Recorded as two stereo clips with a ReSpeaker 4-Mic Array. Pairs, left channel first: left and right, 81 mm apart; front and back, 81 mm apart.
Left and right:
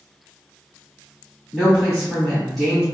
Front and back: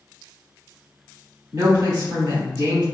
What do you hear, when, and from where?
1.5 s a woman speaking: straight behind, 1.8 m